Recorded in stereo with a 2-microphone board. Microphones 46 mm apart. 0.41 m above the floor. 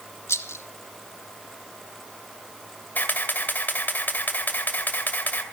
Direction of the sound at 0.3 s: 85° left.